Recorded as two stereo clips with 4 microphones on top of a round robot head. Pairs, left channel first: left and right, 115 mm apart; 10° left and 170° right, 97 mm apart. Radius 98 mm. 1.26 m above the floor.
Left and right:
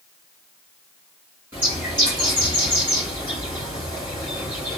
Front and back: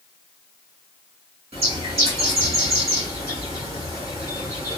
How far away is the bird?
About 3.5 m.